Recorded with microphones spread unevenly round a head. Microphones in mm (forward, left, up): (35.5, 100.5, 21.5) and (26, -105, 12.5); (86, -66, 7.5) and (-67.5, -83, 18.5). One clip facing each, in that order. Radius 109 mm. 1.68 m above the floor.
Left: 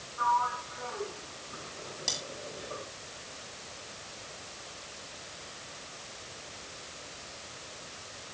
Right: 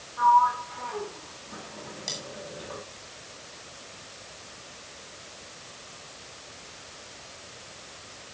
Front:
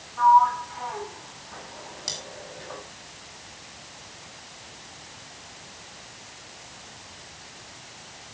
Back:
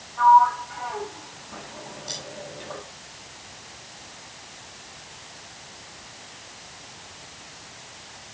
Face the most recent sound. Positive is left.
turn(degrees=5)